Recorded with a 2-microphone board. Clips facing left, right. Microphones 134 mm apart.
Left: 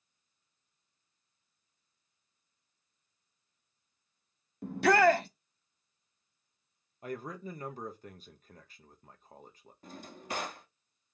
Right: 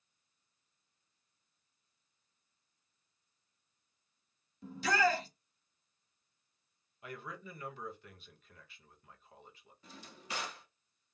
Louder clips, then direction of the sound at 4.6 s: Left 8 dB; 60° left (ahead or behind).